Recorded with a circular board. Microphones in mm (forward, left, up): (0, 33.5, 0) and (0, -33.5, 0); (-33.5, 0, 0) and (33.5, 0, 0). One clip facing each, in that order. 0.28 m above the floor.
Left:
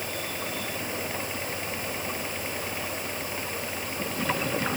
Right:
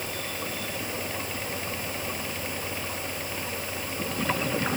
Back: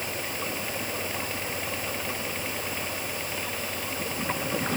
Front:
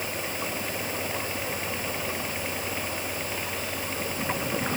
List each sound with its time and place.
Only background noise.